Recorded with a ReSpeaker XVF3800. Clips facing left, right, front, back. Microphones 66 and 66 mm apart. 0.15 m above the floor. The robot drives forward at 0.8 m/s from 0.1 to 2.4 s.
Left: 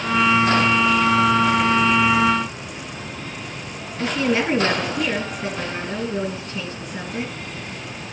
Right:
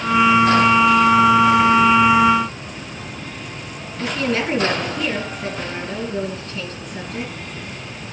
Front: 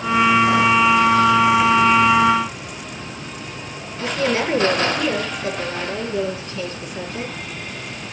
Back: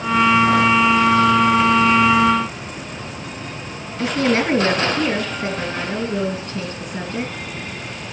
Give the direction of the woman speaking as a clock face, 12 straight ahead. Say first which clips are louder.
Left 1 dB, back 2 dB; 6 o'clock.